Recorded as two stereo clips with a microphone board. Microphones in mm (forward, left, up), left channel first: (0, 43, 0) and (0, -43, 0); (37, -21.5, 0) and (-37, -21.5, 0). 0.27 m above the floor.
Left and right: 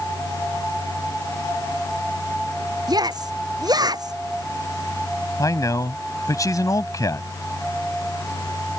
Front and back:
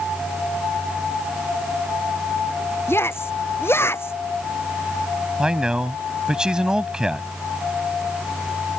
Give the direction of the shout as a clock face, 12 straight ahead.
2 o'clock.